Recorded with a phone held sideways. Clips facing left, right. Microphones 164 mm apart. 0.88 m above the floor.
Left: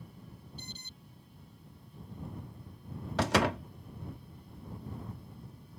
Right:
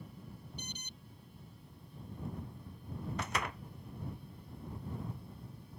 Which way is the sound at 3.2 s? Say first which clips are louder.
Left 13 dB; 80° left.